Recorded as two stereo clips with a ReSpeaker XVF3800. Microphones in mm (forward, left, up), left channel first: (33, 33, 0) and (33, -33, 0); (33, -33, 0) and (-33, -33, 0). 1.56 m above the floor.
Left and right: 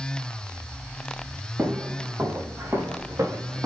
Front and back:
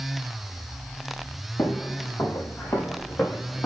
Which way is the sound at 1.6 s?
35° right.